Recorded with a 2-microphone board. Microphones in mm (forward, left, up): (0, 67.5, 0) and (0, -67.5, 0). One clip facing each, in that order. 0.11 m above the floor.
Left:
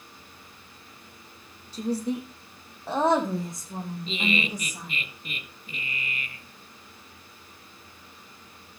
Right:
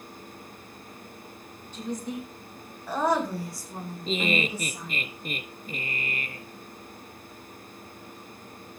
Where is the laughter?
45° right (ahead or behind), 1.5 m.